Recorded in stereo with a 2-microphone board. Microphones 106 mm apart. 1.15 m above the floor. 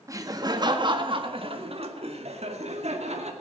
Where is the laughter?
30° right (ahead or behind), 1.7 m; by 3.3 s 75° right (ahead or behind), 2.5 m.